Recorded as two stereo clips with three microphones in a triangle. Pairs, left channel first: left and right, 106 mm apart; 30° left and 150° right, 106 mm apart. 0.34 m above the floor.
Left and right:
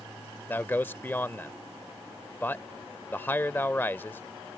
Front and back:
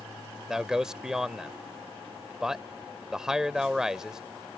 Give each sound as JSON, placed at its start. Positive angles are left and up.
{"t": 0.5, "sound": "a man speaking", "azimuth_deg": 130}